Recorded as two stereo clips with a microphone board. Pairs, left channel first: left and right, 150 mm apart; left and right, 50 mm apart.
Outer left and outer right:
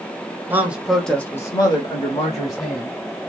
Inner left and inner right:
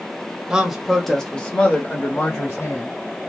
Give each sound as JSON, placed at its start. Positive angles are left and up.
{"t": 0.5, "sound": "a man speaking", "side_deg": -15, "distance_m": 1.1}